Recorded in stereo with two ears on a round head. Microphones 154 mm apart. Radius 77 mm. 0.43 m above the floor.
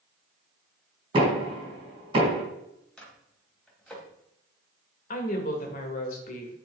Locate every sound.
1.1 s knocking: 30° right (ahead or behind), 3 m
3.0 s a microwave: 5° left (ahead or behind), 2.0 m
5.1 s a woman speaking: 50° left (ahead or behind), 1.7 m